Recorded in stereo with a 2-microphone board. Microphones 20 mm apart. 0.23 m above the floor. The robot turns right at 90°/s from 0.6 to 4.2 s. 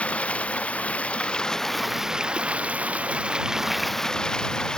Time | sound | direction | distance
0.0 | running water | 70° left | ?